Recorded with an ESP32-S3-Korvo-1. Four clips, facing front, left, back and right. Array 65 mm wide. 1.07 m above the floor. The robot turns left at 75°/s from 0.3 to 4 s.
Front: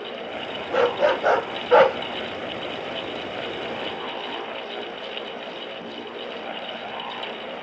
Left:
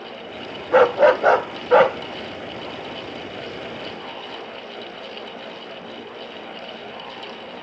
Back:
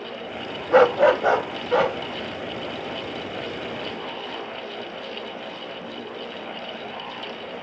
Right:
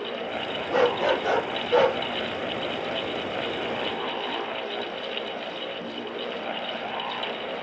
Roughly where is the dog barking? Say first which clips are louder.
Left 8 dB, back 5 dB; behind left.